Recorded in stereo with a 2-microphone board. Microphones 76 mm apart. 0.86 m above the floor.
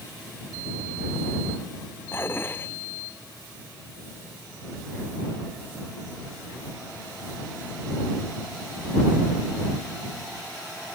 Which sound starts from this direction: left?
Dishes clattering, at 2.1 s.